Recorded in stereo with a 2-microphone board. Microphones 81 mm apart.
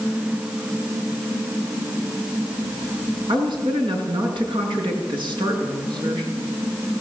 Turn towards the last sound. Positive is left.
turn(degrees=-75)  # may be behind; listen again after turning